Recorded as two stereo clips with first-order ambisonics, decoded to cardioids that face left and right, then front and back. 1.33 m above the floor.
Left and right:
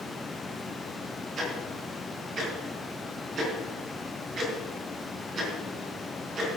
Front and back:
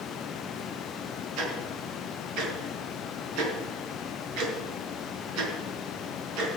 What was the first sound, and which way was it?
Ticking, 150° right.